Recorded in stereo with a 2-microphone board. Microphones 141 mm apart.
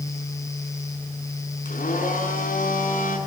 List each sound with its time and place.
1.6 s a blender: 80° left, 7 m